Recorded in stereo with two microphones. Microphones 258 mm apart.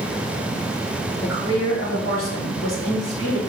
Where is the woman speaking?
60° left (ahead or behind), 2 m.